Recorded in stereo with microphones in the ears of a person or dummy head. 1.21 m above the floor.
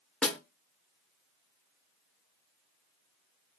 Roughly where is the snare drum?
Centre.